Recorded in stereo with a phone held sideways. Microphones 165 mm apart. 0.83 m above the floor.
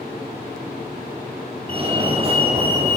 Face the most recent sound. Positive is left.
turn(degrees=-35)  # may be behind; listen again after turning